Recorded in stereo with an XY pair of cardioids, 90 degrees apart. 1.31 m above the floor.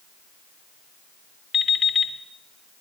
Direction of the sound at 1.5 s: 70° left.